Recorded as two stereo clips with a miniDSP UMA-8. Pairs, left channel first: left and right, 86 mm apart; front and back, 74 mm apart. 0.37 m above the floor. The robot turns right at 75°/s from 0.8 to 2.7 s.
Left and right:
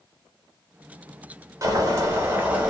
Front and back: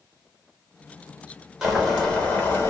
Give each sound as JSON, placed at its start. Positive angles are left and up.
{"t": 1.6, "sound": "boiling", "azimuth_deg": -100, "distance_m": 0.9}